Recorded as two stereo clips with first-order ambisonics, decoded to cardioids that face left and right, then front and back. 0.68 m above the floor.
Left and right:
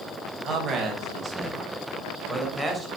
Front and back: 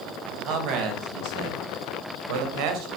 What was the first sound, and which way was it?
A man speaking, 155° right.